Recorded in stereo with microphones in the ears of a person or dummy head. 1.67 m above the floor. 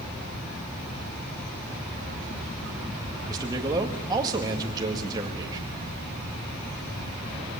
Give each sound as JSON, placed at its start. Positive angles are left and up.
{"t": 3.3, "sound": "a man speaking", "side_deg": -20, "distance_m": 2.0}